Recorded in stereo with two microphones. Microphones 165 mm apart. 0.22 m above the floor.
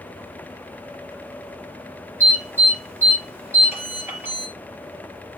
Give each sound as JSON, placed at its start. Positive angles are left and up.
{"t": 2.2, "sound": "an alarm", "side_deg": -15, "distance_m": 6.0}